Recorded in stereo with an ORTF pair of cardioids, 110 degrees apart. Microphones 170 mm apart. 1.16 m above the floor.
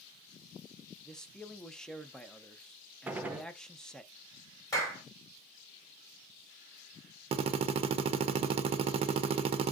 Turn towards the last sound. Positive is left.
turn(degrees=-40)